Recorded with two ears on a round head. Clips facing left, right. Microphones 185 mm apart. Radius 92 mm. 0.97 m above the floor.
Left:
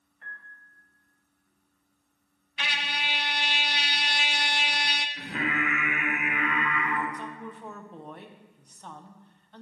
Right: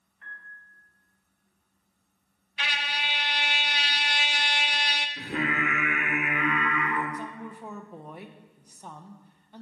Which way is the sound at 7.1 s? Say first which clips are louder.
Right 1 dB; 5° right (ahead or behind).